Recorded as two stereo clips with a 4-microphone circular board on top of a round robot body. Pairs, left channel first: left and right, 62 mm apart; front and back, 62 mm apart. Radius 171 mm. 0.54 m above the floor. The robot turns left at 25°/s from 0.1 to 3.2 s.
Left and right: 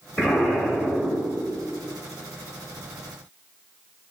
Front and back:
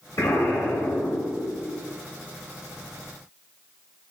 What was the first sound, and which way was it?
An explosion, 20° left.